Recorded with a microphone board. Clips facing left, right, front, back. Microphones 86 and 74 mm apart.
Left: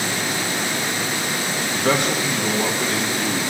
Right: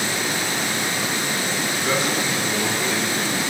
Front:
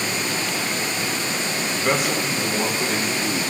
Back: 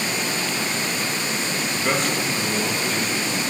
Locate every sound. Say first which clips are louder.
1.7 s a man speaking: left 4 dB, front 2 dB; 90° left, 1.6 m; by 3.4 s 50° left, 2.5 m